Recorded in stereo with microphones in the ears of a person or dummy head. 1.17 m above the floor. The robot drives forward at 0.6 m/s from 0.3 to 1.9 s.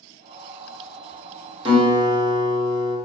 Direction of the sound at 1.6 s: 25° right (ahead or behind).